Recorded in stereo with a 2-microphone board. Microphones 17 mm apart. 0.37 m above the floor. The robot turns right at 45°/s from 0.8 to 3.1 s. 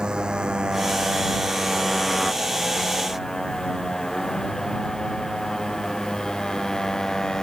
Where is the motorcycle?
70° right (ahead or behind); by 7.4 s 35° left (ahead or behind).